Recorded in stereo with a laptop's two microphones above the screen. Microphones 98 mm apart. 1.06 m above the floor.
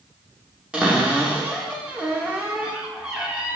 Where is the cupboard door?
10° right (ahead or behind), 0.6 m.